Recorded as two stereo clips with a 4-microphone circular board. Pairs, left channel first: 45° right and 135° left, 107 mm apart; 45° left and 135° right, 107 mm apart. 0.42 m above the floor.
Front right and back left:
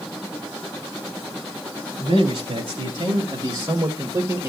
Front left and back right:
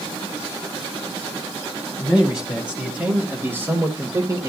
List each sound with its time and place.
2.0 s a man speaking: 140° left, 3 m; by 4.5 s 175° right, 1.7 m